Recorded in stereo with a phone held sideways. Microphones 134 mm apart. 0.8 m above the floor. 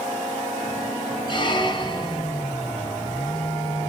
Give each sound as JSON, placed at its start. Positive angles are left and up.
{"t": 1.3, "sound": "a squeak", "side_deg": 35, "distance_m": 0.8}